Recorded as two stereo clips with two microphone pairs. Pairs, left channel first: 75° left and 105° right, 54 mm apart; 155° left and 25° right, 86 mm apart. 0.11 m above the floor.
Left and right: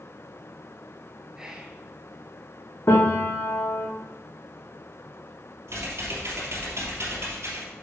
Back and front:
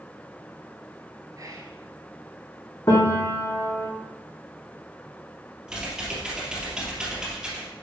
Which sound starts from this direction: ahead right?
Whispering, at 1.4 s.